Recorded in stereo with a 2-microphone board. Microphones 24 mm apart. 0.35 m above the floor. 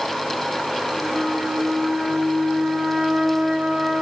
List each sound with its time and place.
1.0 s a flute: 35° right (ahead or behind), 5 m